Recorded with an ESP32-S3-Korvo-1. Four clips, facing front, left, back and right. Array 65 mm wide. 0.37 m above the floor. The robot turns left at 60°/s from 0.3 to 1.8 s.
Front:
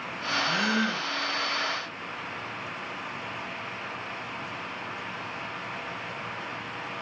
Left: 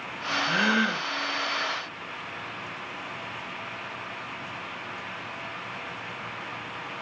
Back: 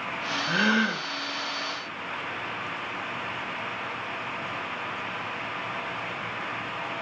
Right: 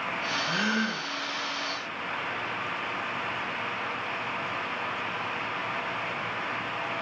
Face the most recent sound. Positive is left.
turn(degrees=70)